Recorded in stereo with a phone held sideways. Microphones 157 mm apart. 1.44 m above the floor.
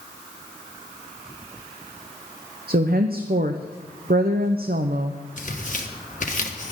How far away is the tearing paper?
About 1.6 m.